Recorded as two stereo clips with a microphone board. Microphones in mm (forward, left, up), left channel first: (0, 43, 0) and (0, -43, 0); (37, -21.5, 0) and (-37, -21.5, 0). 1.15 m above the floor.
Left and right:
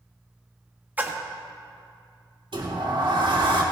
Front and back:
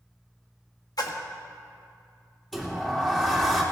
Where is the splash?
20° right, 1.3 m.